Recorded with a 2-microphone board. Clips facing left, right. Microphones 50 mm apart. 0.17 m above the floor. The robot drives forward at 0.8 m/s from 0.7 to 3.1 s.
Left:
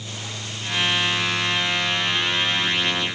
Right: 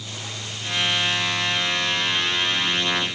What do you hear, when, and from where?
Only background noise.